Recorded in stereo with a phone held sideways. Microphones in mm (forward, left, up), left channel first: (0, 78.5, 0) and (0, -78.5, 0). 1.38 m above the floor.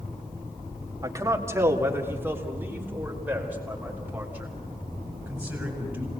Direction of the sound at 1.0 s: 25° right (ahead or behind).